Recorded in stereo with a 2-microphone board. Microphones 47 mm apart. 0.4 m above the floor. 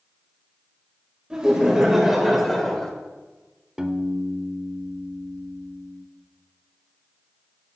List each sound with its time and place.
1.3 s laughter: 15° right (ahead or behind), 2.0 m; by 2.9 s 10° left (ahead or behind), 1.7 m
3.8 s a piano: 15° right (ahead or behind), 0.7 m